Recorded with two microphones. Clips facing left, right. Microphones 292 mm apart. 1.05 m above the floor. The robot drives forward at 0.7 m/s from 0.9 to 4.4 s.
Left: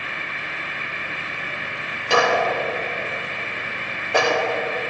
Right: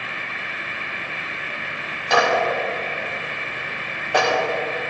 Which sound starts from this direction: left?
A clap, at 2.1 s.